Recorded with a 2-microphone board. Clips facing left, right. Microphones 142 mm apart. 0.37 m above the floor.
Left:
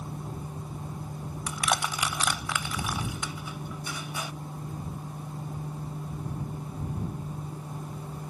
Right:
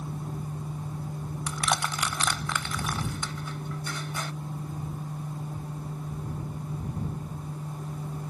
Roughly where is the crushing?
Centre.